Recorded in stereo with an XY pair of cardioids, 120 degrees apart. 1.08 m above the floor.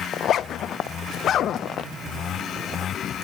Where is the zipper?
50° left, 0.5 m.